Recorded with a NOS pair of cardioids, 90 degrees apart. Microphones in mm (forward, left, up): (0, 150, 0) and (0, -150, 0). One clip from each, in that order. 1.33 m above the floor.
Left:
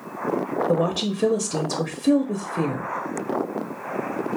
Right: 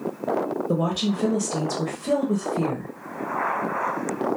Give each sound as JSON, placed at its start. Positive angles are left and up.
{"t": 0.7, "sound": "a woman speaking", "azimuth_deg": 20, "distance_m": 0.6}